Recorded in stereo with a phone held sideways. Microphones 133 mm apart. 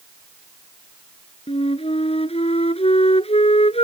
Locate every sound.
1.5 s a flute: 50° left (ahead or behind)